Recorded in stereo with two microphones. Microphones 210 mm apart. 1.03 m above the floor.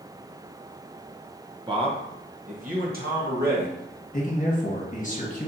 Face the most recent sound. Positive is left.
turn(degrees=40)  # may be behind; listen again after turning